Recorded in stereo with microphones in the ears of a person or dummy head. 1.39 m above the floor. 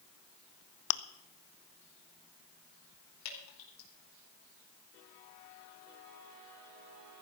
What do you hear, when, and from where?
0.9 s chewing: 55° left (ahead or behind), 0.7 m
3.2 s dripping: 85° left, 4.5 m